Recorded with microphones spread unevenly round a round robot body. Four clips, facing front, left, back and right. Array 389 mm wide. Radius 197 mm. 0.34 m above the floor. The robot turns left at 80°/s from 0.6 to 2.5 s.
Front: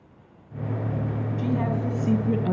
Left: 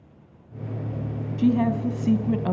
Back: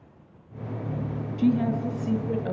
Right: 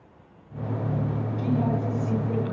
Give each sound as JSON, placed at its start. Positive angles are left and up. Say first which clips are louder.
{"t": 1.4, "sound": "a woman speaking", "louder": "left 6 dB, back 4 dB", "azimuth_deg": 130, "distance_m": 3.5}